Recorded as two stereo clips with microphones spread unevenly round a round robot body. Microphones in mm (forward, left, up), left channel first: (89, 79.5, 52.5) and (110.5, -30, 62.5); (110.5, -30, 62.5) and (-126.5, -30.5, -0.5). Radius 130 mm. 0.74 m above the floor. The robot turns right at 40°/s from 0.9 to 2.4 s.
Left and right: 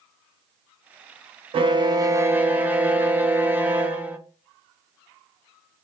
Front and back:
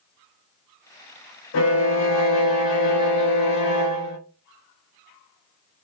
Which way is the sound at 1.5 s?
40° right.